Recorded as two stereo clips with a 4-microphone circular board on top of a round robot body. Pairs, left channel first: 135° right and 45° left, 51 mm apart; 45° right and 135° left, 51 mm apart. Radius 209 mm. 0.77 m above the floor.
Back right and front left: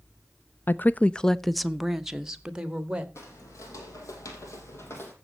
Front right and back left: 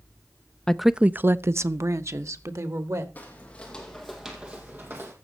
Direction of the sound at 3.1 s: 105° right.